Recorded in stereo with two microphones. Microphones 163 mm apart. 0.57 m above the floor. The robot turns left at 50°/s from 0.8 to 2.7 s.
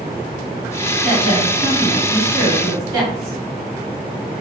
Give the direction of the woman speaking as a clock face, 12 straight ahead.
2 o'clock.